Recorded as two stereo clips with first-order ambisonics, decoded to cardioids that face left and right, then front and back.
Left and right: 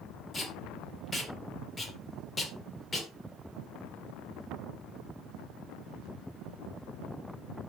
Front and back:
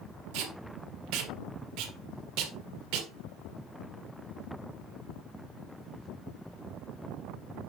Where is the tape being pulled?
165° left, 1.8 m.